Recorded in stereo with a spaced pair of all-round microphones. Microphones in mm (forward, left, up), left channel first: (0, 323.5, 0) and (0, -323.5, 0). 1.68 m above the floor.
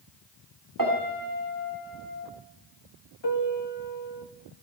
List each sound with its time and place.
0.8 s a piano: 30° right (ahead or behind), 2.5 m
3.2 s a piano: 40° left (ahead or behind), 1.4 m